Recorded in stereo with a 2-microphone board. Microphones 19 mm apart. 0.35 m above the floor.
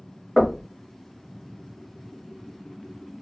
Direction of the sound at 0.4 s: 20° left (ahead or behind).